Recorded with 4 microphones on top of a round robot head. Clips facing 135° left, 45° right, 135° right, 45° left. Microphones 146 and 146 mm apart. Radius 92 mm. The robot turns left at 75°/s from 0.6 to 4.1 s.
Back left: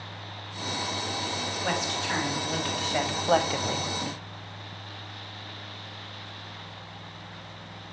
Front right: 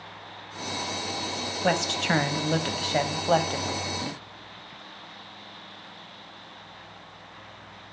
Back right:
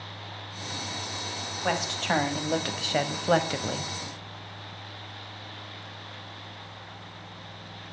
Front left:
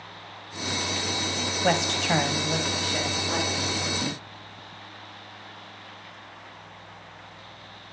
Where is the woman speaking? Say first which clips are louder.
Front right 7 dB, front left 4 dB; 5° right, 4 m; by 3.9 s 175° right, 4 m.